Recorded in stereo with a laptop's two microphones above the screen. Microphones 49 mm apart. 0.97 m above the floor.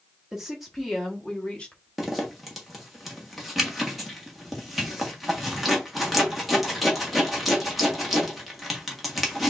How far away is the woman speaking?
About 1.6 m.